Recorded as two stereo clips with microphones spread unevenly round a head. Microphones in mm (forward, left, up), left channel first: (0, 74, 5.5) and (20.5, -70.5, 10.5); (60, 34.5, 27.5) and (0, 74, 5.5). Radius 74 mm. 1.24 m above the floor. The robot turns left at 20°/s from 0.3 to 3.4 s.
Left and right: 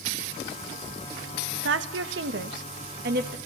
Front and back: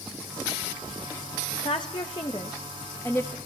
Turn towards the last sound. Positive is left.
turn(degrees=-120)